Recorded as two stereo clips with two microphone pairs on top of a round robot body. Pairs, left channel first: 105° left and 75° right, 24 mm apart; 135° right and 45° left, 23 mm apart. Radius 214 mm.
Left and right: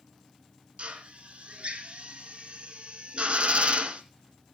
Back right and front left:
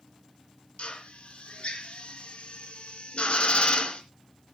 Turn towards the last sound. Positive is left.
turn(degrees=-105)